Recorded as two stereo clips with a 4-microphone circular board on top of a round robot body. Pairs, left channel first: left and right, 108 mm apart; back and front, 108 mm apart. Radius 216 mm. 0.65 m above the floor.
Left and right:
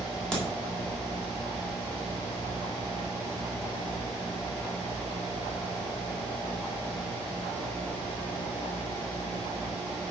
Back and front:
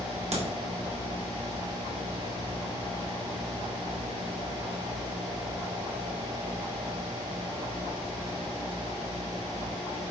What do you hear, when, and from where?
0.3 s a crack: 5° left, 4 m